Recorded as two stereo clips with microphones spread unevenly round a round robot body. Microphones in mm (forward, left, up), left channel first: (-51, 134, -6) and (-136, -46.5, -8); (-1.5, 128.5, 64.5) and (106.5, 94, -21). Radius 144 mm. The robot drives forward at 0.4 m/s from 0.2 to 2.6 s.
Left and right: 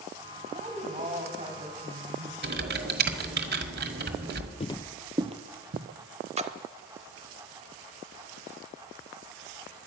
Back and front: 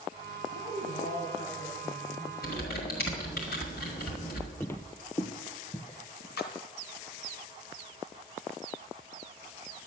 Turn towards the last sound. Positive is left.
turn(degrees=-170)